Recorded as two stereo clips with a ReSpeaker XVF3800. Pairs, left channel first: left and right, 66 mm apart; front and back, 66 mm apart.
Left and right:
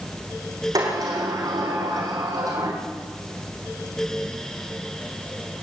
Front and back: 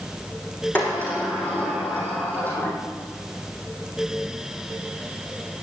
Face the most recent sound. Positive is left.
turn(degrees=-65)